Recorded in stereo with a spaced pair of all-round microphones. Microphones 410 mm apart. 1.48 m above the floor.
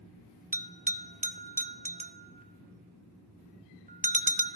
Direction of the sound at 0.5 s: 20° right (ahead or behind).